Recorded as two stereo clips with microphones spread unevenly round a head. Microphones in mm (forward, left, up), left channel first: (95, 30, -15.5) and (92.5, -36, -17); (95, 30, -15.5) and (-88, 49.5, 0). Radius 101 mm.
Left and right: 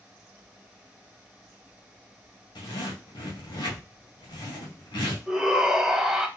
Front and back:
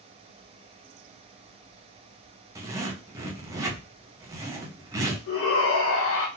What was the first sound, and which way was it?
A zipper, 100° left.